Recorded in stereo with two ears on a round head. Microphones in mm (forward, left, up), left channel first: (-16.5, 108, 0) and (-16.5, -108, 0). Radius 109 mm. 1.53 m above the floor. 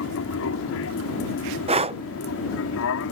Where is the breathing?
25° right (ahead or behind).